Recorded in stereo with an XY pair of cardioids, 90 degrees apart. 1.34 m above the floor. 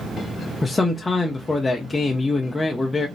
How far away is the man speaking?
About 0.7 m.